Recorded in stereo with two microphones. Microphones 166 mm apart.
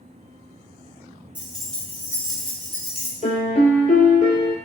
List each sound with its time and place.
1.4 s keys jangling: 10° right (ahead or behind), 0.9 m; by 3.1 s 45° left (ahead or behind), 1.0 m
3.2 s a piano: 50° left (ahead or behind), 1.0 m